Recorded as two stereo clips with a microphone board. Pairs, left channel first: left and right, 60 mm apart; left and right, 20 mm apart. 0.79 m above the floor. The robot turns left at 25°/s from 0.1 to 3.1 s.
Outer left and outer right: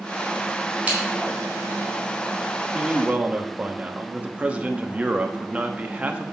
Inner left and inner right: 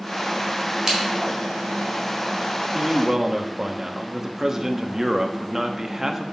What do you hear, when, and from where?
0.9 s scissors: 20° right (ahead or behind), 3.5 m; by 1.0 s 15° right (ahead or behind), 3.5 m
2.7 s a man speaking: 15° right (ahead or behind), 0.9 m; by 6.2 s 25° right (ahead or behind), 0.9 m